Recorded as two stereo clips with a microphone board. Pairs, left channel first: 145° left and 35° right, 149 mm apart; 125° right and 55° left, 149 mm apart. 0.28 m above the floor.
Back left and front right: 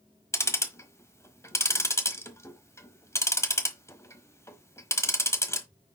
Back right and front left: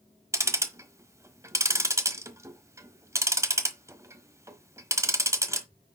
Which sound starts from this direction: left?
Ticking, at 0.3 s.